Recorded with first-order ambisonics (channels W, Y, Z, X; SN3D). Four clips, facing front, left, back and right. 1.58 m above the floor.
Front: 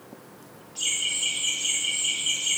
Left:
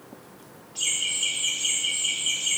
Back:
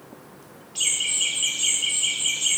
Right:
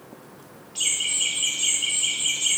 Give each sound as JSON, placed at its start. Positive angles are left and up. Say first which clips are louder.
{"t": 0.8, "sound": "laughter", "louder": "right 2 dB, back 3 dB", "azimuth_deg": -145, "distance_m": 4.5}